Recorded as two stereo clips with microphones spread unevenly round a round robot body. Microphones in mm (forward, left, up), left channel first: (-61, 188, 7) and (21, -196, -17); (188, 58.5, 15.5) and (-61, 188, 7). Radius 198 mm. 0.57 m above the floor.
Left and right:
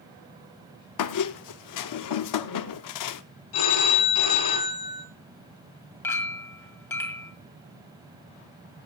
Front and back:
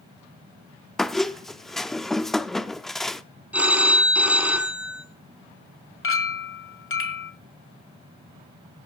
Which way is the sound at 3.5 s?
65° left.